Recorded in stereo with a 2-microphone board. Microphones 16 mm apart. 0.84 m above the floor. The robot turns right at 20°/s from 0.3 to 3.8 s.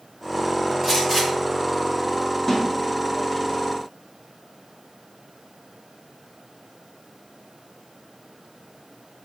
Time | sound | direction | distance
0.8 | a gunshot | centre (ahead or behind) | 2 m
2.5 | a snare drum | 20° left (ahead or behind) | 1.2 m